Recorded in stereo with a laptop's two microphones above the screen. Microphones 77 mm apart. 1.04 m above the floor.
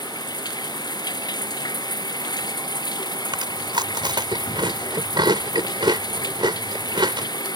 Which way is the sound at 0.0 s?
65° left (ahead or behind).